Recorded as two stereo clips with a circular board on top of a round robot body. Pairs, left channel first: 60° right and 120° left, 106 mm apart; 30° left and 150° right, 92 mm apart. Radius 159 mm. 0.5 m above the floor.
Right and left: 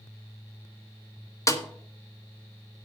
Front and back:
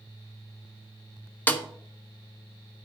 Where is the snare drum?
25° right, 1.4 m.